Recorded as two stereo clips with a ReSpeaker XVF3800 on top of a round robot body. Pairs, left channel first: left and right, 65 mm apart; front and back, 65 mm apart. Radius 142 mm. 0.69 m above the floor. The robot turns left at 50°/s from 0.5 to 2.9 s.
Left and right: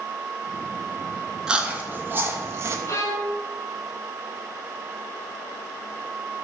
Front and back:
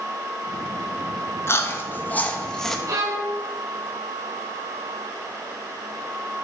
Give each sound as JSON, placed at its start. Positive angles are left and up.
{"t": 1.5, "sound": "chewing", "azimuth_deg": -20, "distance_m": 1.2}
{"t": 2.9, "sound": "a violin", "azimuth_deg": 140, "distance_m": 0.8}